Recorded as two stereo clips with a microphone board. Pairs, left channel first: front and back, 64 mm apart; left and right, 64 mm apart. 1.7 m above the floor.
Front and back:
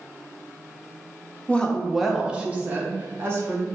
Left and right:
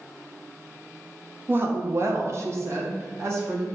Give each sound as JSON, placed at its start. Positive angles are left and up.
{"t": 1.5, "sound": "a woman speaking", "azimuth_deg": -60, "distance_m": 0.7}